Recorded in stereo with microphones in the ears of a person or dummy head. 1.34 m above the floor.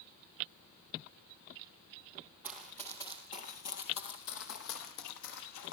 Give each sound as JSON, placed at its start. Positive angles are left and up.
{"t": 2.4, "sound": "running footsteps", "side_deg": -5, "distance_m": 2.0}